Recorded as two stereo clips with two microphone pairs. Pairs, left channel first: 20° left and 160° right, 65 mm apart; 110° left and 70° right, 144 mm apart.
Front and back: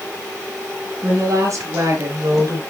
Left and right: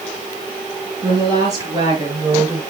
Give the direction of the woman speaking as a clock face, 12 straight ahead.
4 o'clock.